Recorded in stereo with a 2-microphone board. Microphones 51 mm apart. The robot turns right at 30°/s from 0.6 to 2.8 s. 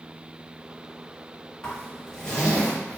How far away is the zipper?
About 1.4 m.